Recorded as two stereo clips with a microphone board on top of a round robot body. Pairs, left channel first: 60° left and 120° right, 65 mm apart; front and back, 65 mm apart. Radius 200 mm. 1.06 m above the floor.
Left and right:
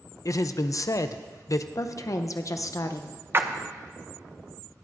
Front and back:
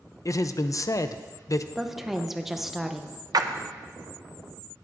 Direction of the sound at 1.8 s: 95° left.